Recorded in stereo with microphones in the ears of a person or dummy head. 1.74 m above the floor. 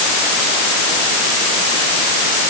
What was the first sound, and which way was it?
Only background noise.